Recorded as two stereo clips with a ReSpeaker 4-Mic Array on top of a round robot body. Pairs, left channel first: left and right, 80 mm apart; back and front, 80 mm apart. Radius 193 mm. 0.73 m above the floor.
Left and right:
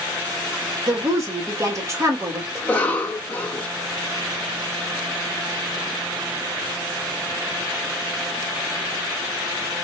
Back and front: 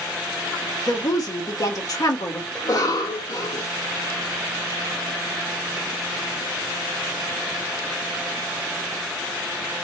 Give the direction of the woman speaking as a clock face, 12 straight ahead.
5 o'clock.